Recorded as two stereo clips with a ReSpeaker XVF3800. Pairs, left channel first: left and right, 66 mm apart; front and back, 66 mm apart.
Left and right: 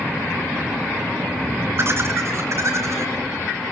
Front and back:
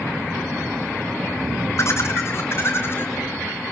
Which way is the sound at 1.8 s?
40° right.